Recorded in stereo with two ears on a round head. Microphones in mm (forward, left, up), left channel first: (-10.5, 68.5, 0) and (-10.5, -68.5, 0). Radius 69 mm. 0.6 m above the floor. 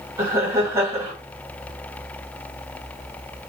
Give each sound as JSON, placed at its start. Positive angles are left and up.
{"t": 0.2, "sound": "laughter", "side_deg": -20, "distance_m": 3.0}